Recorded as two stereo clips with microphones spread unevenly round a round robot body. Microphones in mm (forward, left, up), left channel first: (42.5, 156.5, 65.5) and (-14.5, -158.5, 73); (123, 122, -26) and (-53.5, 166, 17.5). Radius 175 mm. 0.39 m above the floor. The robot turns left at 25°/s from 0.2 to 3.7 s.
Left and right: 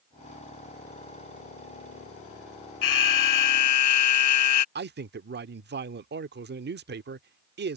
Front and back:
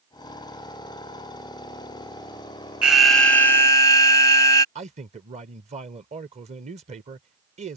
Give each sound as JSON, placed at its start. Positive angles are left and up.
{"t": 2.8, "sound": "an alarm", "azimuth_deg": 75}
{"t": 4.8, "sound": "a man speaking", "azimuth_deg": -135}